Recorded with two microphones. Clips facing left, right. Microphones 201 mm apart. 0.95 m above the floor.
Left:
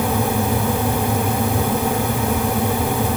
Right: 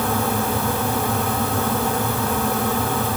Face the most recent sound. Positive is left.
No sound to turn to.